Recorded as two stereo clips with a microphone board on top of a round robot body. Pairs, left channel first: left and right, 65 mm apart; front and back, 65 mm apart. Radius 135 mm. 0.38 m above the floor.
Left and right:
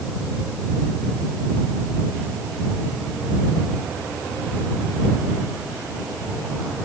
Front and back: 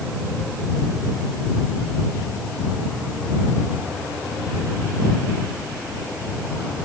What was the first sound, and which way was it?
Only background noise.